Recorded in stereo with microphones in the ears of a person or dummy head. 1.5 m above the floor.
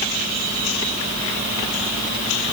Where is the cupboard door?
No cupboard door in this recording.